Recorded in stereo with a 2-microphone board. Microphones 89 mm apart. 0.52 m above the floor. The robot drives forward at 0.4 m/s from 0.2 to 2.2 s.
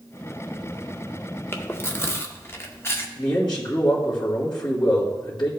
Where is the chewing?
25° left (ahead or behind), 0.7 m.